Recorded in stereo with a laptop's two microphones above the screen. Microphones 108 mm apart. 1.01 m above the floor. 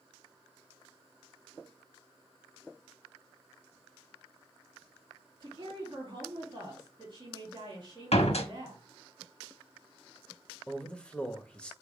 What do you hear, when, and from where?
5.4 s a woman speaking: 40° right (ahead or behind), 3 m
8.1 s a door slam: 70° left (ahead or behind), 1.1 m
10.7 s a man speaking: 10° left (ahead or behind), 1.5 m